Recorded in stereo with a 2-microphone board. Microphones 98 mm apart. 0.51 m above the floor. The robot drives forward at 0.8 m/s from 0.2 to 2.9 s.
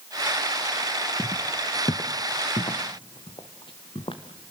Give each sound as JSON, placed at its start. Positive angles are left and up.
{"t": 1.2, "sound": "footsteps", "side_deg": 20, "distance_m": 0.9}